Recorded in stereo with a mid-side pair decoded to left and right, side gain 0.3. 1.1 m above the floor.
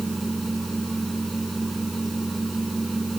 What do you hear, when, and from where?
0.0 s a machine running: 15° right